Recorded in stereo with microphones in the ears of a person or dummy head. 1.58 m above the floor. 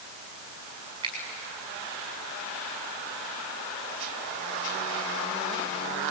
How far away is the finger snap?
About 6.5 m.